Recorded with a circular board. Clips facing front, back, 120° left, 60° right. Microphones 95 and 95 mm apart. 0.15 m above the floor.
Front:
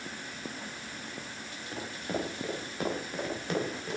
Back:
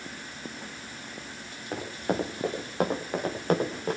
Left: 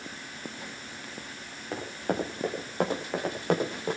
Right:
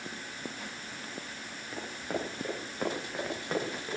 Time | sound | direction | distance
1.7 | running footsteps | 140° left | 6.5 m